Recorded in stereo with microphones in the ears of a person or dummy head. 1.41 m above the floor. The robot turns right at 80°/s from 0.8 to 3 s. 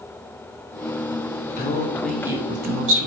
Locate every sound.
1.6 s a man speaking: 130° left, 0.7 m; by 3.1 s 115° right, 0.7 m